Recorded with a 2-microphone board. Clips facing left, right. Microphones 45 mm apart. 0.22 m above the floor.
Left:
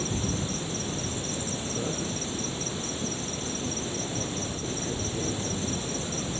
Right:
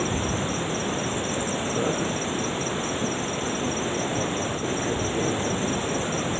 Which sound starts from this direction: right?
An insect, at 0.0 s.